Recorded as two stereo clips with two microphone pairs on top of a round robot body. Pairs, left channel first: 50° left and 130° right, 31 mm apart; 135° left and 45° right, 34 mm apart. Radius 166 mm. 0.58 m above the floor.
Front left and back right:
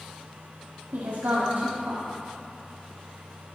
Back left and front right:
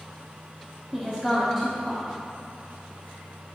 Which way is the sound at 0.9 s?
145° right.